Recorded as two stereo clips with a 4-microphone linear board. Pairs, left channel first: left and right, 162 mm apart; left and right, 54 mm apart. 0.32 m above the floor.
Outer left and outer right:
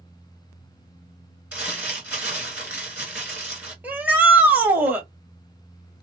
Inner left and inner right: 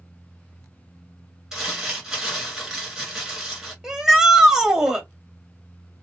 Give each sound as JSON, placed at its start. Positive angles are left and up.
{"t": 1.5, "sound": "crumpling", "side_deg": -10, "distance_m": 2.0}
{"t": 3.8, "sound": "a shout", "side_deg": -10, "distance_m": 1.3}